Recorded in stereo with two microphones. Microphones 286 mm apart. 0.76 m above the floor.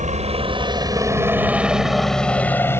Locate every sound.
0.0 s a helicopter: 25° right (ahead or behind); by 2.8 s 10° left (ahead or behind)